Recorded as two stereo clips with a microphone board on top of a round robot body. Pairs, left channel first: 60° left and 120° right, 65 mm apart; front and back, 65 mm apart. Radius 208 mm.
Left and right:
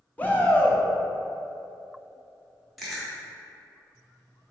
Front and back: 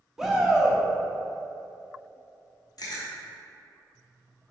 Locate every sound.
0.2 s a shout: 105° left, 1.2 m
2.8 s chewing: 30° right, 1.2 m